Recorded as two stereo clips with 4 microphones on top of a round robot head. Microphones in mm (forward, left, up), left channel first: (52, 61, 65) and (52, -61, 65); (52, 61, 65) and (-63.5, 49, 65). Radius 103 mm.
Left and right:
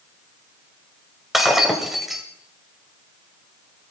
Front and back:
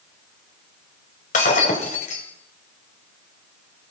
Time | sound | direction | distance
1.3 | breaking glass | straight ahead | 1.9 m